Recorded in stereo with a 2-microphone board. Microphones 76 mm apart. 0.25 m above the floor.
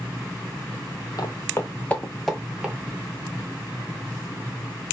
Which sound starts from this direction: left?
Footsteps, at 1.2 s.